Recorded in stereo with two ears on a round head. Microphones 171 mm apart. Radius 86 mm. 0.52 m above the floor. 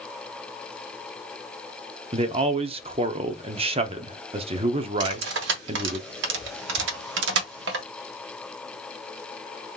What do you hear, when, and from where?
2.1 s a man speaking: 30° right (ahead or behind), 0.7 m
5.0 s cutlery clinking: 65° right (ahead or behind), 1.2 m